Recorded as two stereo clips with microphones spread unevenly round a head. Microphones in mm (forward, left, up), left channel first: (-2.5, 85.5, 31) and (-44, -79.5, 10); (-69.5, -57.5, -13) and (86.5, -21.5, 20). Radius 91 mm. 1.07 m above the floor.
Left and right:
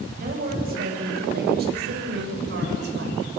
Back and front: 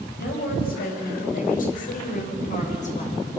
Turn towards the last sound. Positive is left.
turn(degrees=-120)